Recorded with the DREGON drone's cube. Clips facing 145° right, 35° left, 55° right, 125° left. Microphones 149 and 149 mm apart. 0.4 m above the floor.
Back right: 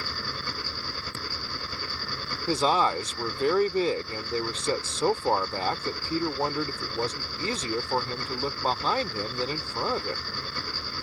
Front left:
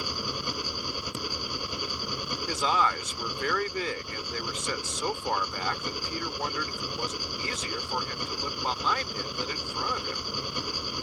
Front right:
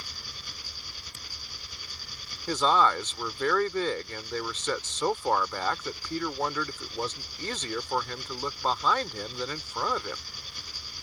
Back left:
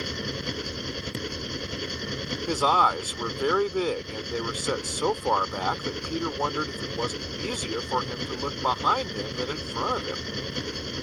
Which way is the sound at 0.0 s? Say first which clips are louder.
Front left 2 dB, back left 17 dB; 110° left.